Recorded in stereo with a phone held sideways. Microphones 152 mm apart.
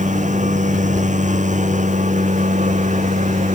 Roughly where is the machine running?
Right.